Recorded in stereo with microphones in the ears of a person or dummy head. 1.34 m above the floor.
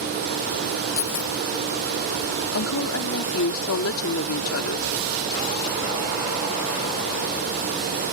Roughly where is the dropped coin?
Left.